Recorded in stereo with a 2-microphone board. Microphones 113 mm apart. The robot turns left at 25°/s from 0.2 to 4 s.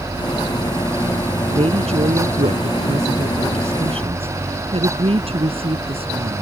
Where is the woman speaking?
60° right (ahead or behind).